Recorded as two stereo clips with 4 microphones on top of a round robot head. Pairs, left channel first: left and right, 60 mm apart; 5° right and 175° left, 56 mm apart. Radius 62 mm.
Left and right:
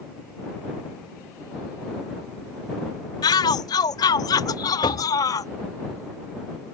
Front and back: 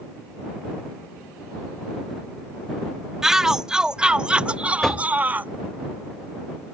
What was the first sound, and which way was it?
A shout, 90° left.